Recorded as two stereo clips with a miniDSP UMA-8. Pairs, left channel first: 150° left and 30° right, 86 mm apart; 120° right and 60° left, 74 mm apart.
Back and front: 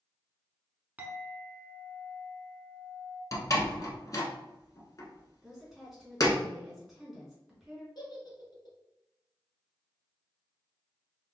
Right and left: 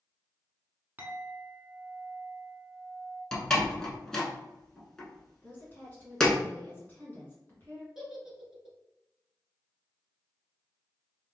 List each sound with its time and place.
1.0 s a clink: 25° left, 0.9 m
3.3 s a door slam: 160° left, 1.0 m
5.4 s a woman speaking: 115° right, 1.6 m
8.0 s a giggle: 145° left, 1.3 m